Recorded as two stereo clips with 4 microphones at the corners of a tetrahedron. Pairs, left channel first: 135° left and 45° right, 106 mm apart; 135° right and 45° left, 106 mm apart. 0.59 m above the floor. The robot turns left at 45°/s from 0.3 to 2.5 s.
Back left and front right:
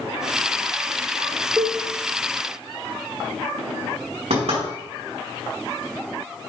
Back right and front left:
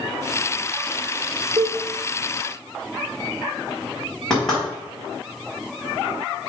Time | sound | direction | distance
1.6 | a cowbell | 30° left | 1.2 m
4.3 | knocking | 50° right | 4 m